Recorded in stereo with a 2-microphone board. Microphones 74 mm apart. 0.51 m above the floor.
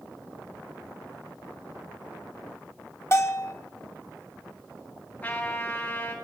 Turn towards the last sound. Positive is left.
turn(degrees=20)  # may be behind; listen again after turning